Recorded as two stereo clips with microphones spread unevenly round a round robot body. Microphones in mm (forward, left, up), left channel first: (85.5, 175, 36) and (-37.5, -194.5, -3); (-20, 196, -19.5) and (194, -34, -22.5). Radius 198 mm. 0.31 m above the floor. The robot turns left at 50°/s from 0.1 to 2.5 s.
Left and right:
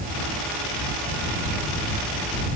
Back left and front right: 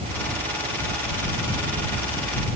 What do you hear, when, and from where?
Only background noise.